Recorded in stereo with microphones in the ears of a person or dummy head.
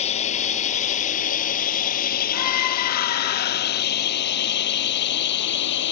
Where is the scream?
50° left (ahead or behind).